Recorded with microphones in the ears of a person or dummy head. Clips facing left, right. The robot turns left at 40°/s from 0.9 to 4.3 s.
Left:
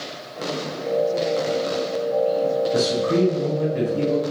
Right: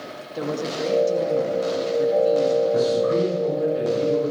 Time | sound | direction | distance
0.3 | a woman speaking | 60° right | 2 m
2.7 | a man speaking | 150° left | 9.5 m